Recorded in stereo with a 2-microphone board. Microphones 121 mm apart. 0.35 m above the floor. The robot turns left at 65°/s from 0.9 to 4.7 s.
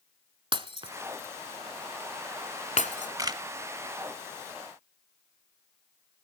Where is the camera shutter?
30° right (ahead or behind), 0.7 m; by 3.4 s 40° right (ahead or behind), 0.7 m.